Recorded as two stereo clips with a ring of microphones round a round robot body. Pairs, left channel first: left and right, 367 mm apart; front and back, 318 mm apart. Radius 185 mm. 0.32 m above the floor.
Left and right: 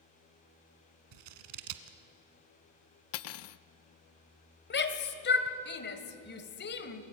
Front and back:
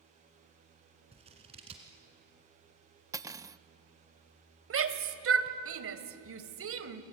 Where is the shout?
145° left, 1.9 m.